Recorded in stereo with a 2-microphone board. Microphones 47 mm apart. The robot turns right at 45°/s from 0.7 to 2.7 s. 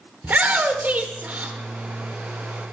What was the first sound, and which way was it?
A shout, 110° right.